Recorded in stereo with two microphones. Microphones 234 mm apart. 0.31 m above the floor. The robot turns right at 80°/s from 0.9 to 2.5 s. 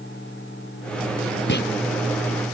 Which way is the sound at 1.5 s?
50° left (ahead or behind).